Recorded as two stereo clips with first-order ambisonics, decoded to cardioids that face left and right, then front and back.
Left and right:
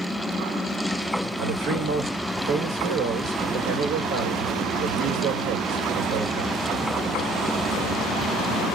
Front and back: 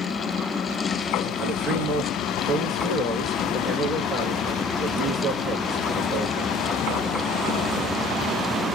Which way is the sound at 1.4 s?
105° right.